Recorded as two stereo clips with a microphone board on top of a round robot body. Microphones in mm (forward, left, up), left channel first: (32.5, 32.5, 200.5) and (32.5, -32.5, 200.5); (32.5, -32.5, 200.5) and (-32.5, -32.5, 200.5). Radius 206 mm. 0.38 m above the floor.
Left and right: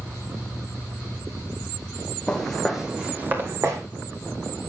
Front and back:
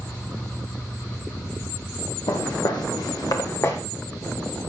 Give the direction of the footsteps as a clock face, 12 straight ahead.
12 o'clock.